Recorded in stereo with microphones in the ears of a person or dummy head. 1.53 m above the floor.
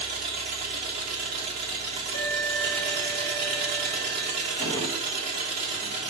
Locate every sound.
0.0 s an engine running: 40° right (ahead or behind), 3 m
2.1 s an alarm: 40° left (ahead or behind), 3 m
4.6 s a drawer: 10° left (ahead or behind), 3.5 m